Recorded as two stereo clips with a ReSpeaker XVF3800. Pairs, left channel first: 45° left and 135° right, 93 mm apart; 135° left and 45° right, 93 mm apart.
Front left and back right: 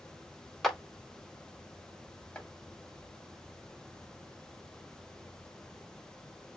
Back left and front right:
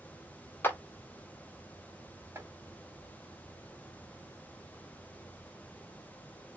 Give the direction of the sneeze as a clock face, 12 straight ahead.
No sneeze in this recording.